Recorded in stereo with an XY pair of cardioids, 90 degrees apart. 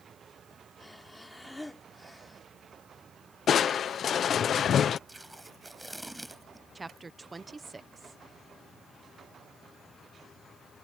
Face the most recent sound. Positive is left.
turn(degrees=-25)